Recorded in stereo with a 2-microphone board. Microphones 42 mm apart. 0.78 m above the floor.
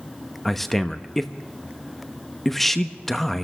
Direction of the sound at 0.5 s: 10° left (ahead or behind).